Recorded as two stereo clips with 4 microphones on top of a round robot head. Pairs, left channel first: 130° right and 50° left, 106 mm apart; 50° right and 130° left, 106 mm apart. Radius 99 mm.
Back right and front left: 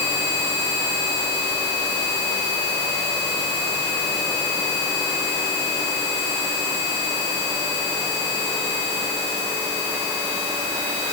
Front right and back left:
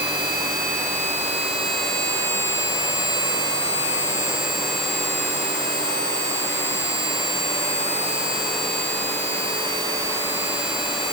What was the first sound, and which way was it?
Only background noise.